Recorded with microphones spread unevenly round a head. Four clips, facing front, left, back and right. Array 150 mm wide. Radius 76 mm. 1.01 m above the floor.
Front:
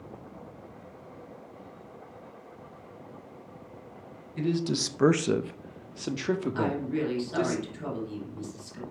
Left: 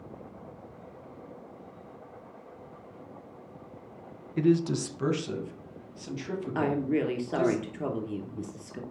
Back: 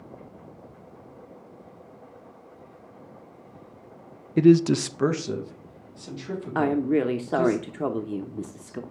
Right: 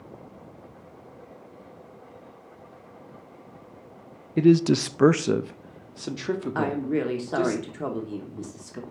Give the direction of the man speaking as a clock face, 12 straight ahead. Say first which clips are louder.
Right 6 dB, back 12 dB; 5 o'clock.